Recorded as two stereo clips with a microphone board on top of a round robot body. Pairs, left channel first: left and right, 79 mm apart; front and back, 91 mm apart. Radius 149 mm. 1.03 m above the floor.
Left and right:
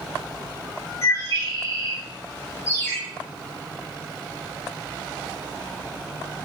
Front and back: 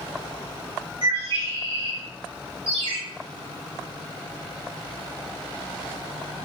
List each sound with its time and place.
1.0 s a bird: 145° left, 2.5 m
2.7 s a ringtone: 155° left, 1.3 m